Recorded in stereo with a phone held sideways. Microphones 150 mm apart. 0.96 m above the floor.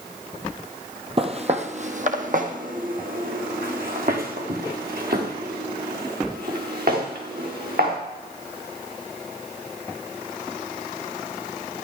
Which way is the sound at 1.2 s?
40° right (ahead or behind).